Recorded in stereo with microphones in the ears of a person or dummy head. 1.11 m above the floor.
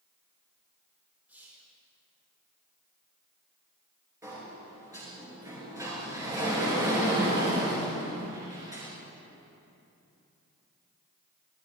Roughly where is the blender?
No blender in this recording.